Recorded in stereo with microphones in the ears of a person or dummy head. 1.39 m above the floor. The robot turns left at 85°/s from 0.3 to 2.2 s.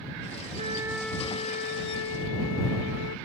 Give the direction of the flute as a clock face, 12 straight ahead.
5 o'clock.